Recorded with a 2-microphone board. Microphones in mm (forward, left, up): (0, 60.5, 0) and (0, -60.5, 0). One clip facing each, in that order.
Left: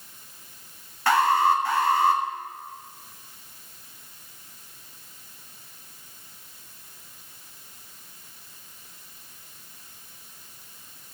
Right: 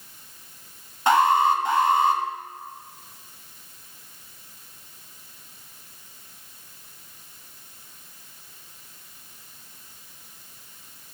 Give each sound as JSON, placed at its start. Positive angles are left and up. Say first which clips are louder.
{"t": 1.1, "sound": "an alarm", "louder": "right 2 dB", "side_deg": -20, "distance_m": 1.3}